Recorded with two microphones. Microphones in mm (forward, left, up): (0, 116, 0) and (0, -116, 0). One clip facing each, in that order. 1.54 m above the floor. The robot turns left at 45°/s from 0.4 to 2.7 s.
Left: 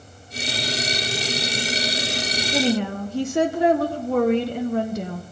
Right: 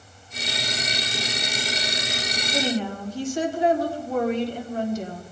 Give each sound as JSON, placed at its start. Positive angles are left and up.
{"t": 2.5, "sound": "a woman speaking", "side_deg": 75, "distance_m": 1.4}